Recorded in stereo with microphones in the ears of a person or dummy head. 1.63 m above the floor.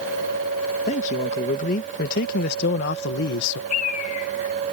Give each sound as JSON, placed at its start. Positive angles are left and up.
{"t": 0.9, "sound": "a man speaking", "side_deg": 40}
{"t": 3.7, "sound": "a bird", "side_deg": 45}